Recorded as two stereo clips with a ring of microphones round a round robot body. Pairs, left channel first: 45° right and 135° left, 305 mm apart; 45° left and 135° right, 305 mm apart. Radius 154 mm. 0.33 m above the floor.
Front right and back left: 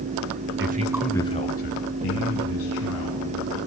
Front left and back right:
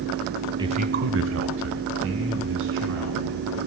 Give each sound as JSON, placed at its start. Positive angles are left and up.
{"t": 0.6, "sound": "a man speaking", "azimuth_deg": 155, "distance_m": 1.0}